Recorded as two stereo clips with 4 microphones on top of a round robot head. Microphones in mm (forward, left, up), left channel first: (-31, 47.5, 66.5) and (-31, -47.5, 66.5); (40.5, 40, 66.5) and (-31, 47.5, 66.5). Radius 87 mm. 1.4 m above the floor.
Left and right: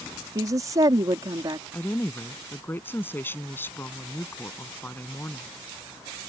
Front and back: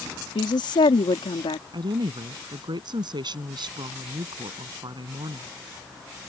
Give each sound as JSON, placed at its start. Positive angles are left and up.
{"t": 0.3, "sound": "a woman speaking", "azimuth_deg": -30}
{"t": 1.7, "sound": "a woman speaking", "azimuth_deg": 160}